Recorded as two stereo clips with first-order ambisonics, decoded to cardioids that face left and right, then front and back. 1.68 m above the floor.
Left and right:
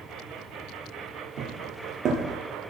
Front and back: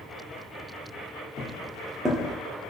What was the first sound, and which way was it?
Footsteps, 60° right.